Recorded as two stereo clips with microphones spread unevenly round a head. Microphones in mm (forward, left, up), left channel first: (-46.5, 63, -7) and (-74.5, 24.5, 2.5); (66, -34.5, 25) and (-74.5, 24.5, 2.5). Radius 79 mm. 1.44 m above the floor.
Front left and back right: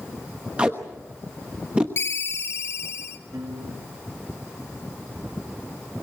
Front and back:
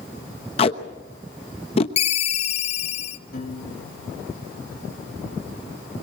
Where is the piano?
60° right, 2.5 m.